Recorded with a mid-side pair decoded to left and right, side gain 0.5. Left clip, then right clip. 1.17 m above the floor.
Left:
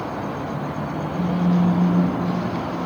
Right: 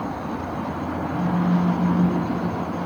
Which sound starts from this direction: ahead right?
A phone buzzing, at 1.1 s.